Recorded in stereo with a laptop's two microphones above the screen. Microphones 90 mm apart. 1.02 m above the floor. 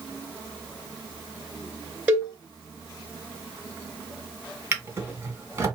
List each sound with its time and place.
2.1 s a cowbell: 15° right (ahead or behind), 2.5 m
4.7 s a drawer: 25° right (ahead or behind), 2 m